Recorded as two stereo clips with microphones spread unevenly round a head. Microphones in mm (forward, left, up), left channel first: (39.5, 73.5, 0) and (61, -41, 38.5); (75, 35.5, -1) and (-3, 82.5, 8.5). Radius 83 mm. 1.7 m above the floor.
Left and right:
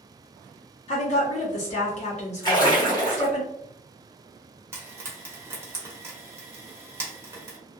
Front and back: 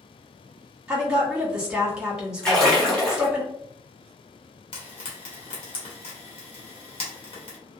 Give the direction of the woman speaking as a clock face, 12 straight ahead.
10 o'clock.